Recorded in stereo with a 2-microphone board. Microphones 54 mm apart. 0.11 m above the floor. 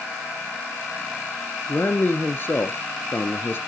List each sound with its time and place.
1.7 s a man speaking: 45° left (ahead or behind), 1.4 m